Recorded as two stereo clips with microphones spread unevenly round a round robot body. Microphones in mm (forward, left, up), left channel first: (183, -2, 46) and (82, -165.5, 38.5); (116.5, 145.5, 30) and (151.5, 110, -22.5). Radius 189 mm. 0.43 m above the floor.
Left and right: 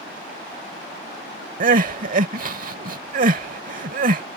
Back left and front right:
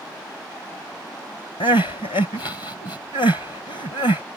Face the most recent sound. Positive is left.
turn(degrees=-175)